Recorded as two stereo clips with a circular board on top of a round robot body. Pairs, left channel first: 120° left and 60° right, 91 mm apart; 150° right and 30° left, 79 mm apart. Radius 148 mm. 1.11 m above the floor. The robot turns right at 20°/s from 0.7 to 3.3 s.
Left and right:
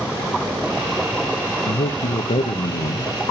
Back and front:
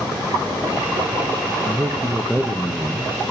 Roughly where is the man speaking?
Left.